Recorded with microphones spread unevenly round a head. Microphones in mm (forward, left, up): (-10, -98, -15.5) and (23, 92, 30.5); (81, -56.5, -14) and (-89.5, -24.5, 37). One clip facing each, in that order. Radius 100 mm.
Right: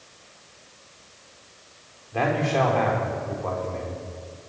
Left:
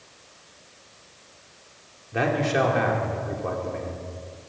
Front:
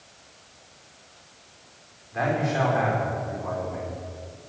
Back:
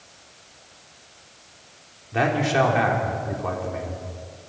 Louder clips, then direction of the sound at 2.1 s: Even, back 4 dB; 150° left.